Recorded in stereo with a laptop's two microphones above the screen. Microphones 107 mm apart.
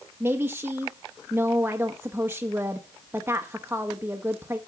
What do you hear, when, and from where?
0.2 s a woman speaking: 20° right (ahead or behind), 0.7 m